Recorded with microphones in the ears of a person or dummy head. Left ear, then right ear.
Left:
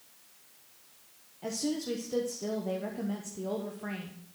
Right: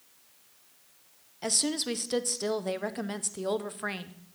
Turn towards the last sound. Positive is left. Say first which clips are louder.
# right 4 dB
turn(degrees=-50)  # may be behind; listen again after turning